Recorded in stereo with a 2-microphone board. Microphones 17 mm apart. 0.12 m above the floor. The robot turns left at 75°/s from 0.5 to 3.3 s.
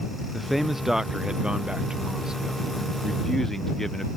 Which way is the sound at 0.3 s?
5° right.